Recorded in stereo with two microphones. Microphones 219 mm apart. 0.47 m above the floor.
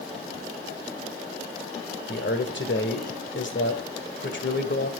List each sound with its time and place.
2.1 s a man speaking: 60° left (ahead or behind), 1.9 m